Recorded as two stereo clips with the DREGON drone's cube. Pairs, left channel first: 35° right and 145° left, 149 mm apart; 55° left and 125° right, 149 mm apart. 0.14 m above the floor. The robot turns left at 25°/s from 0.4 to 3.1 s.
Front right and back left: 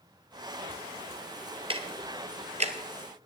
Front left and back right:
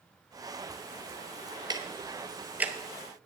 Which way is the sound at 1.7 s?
175° right.